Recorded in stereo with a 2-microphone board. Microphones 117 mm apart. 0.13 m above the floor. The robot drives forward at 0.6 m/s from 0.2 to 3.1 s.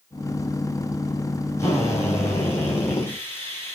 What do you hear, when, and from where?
1.6 s a drill: 25° left (ahead or behind), 4 m; by 3.8 s 20° left (ahead or behind), 4.5 m